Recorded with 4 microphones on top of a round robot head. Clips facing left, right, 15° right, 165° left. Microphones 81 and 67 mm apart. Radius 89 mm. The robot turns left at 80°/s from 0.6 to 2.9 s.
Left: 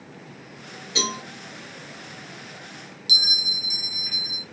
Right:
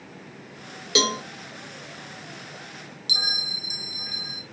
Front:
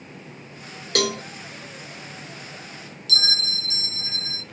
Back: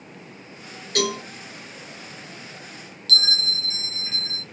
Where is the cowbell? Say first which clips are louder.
Right 5 dB, even; 60° right, 0.6 m; by 1.2 s 80° right, 0.6 m.